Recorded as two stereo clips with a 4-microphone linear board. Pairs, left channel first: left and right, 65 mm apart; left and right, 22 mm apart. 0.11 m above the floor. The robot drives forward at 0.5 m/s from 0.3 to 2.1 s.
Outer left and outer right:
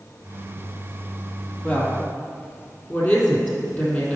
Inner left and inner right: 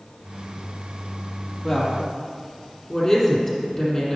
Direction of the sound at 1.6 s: 20° left (ahead or behind).